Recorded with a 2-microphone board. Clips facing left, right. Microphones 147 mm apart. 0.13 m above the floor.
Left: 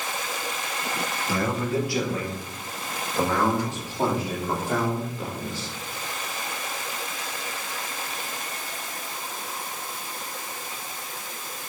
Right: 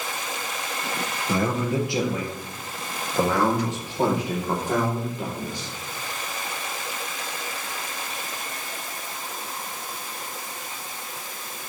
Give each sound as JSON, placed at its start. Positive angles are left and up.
{"t": 1.3, "sound": "a man speaking", "side_deg": -25, "distance_m": 2.0}